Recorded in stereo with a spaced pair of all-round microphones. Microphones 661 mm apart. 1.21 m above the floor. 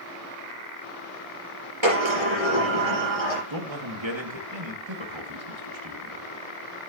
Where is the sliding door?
45° right (ahead or behind), 5 m.